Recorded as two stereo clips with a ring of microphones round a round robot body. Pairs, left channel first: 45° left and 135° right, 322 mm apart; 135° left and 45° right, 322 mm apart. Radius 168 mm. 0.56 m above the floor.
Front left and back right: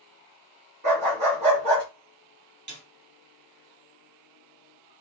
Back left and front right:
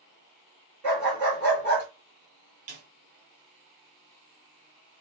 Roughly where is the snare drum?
Right.